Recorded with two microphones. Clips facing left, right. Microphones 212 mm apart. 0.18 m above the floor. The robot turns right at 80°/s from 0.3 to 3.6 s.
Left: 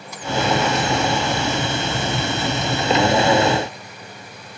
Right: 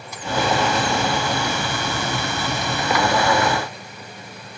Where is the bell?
I don't hear a bell.